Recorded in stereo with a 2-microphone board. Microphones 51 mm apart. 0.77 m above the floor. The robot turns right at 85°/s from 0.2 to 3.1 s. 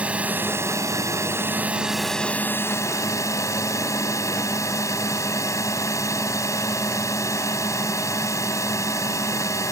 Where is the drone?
155° right; by 9.7 s 90° left.